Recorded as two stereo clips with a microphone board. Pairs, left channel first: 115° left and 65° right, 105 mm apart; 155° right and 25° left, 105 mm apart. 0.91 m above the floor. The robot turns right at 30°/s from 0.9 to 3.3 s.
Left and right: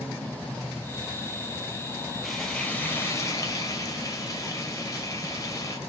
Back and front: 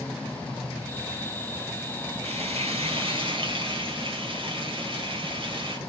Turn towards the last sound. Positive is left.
turn(degrees=55)